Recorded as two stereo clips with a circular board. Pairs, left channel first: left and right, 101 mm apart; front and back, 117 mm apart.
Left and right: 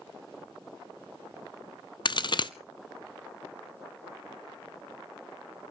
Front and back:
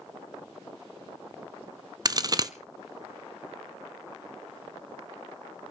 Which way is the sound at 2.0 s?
125° left.